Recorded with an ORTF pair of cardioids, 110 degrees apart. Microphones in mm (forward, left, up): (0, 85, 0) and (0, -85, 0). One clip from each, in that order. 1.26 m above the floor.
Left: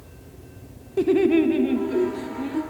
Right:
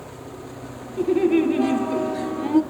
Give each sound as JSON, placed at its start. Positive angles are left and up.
{"t": 1.0, "sound": "laughter", "azimuth_deg": 35, "distance_m": 0.6}